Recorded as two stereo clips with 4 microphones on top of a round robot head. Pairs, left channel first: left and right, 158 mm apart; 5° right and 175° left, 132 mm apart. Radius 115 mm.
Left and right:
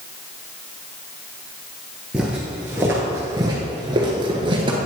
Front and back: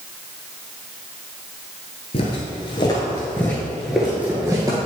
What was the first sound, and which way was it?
Footsteps, 5° right.